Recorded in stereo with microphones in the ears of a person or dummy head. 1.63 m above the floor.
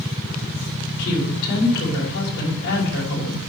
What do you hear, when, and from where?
1.0 s a woman speaking: 65° left (ahead or behind), 5.5 m